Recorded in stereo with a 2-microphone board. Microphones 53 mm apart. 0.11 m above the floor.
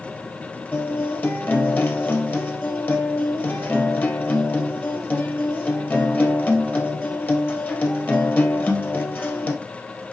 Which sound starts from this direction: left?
A guitar, at 0.7 s.